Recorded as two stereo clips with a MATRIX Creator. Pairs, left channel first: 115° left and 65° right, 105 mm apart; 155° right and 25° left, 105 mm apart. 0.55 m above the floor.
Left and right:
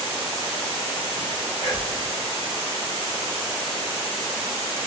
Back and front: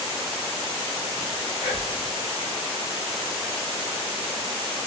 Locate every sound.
1.6 s whispering: 160° left, 1.8 m